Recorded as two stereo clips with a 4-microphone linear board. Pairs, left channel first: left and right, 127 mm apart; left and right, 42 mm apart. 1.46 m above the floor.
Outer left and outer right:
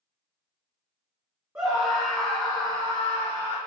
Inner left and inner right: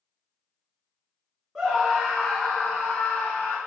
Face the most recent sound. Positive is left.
turn(degrees=60)  # may be behind; listen again after turning